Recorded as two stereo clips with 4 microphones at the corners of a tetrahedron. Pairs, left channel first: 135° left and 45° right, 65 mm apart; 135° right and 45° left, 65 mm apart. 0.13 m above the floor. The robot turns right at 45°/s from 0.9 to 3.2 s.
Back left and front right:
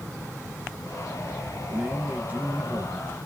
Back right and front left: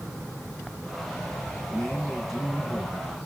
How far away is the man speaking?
About 1.4 m.